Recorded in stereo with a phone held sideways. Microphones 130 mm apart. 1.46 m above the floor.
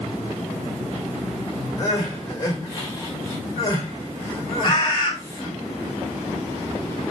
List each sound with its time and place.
1.8 s crying: 25° left (ahead or behind), 2 m
4.6 s a bird: 30° left (ahead or behind), 1.2 m